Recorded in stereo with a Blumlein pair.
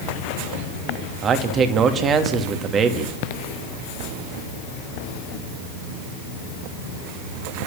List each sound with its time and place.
1.2 s a man speaking: 25° right, 2.5 m